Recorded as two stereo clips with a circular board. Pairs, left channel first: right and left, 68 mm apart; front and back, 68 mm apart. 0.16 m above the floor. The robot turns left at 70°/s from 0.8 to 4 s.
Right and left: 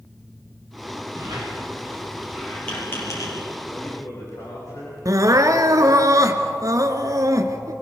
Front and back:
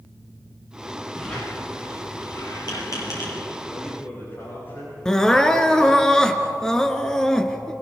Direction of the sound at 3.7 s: 40° right.